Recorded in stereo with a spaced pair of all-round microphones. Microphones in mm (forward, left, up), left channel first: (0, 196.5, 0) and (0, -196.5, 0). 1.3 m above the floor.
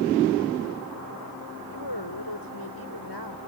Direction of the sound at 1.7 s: 85° left.